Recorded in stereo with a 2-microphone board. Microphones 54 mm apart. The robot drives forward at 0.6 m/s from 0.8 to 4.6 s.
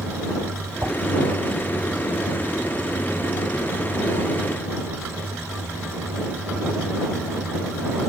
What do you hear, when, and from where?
0.8 s a whoosh: 85° right, 1.3 m; by 0.9 s 80° right, 1.3 m